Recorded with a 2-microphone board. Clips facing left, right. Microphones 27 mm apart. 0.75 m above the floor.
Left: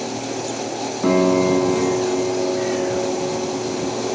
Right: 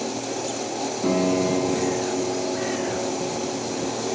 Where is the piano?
35° left (ahead or behind), 5 m.